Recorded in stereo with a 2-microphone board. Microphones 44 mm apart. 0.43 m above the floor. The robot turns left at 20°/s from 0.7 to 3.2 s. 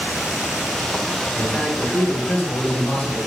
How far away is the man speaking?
About 2 m.